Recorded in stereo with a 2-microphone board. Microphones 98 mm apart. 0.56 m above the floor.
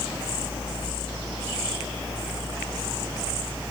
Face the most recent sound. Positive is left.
No sound to turn to.